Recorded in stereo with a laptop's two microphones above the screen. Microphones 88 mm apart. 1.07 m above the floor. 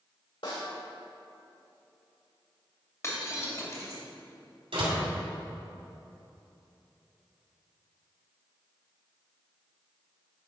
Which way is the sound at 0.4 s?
70° left (ahead or behind).